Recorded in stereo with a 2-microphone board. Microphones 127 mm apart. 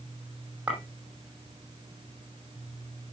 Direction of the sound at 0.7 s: 10° right (ahead or behind).